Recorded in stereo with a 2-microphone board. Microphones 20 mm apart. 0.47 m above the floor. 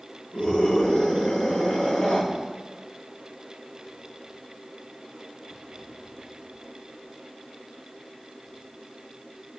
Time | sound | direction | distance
0.3 | a scream | 65° left (ahead or behind) | 4.5 m